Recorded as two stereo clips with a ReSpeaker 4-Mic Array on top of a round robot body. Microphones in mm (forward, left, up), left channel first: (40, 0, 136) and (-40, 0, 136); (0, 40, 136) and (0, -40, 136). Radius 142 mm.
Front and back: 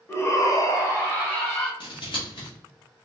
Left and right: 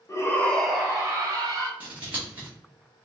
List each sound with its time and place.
0.1 s a shout: 50° left, 1.4 m; by 1.7 s 65° right, 1.9 m
1.8 s scissors: 20° right, 1.1 m